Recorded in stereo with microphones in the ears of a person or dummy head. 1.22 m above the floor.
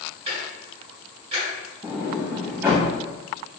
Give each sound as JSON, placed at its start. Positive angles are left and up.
{"t": 0.3, "sound": "ticking", "side_deg": -25, "distance_m": 1.2}
{"t": 1.8, "sound": "a sliding door", "side_deg": -15, "distance_m": 0.7}